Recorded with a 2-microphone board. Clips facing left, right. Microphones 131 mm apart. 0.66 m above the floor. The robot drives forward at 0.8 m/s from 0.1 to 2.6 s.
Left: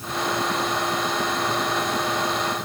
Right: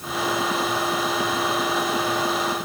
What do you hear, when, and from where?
Only background noise.